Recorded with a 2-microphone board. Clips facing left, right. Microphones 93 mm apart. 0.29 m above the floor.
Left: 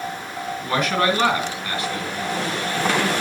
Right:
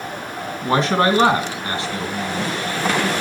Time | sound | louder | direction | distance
0.6 | a man speaking | right 4 dB | 30° right (ahead or behind) | 2.5 m